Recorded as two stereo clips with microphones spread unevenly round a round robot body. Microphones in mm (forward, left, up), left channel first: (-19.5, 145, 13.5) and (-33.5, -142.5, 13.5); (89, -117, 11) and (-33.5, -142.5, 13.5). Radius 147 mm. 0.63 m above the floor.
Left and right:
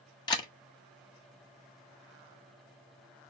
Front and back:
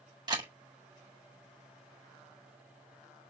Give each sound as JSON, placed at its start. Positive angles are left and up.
{"t": 0.3, "sound": "a camera shutter", "azimuth_deg": 155, "distance_m": 1.5}